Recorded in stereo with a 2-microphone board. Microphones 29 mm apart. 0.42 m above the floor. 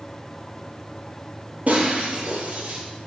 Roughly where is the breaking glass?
Right.